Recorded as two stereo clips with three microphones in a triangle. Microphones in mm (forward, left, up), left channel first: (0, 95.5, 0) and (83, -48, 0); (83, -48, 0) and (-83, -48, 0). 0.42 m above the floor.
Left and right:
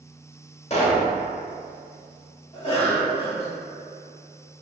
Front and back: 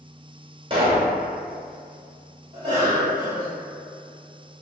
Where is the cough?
145° left, 1.2 m.